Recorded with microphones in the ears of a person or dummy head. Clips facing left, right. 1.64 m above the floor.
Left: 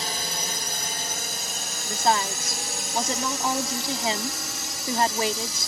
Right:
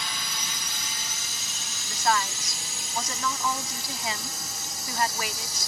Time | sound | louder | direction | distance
0.0 | a drone | left 6 dB | 35° left (ahead or behind) | ?
1.9 | a woman speaking | left 3 dB | 25° left (ahead or behind) | ?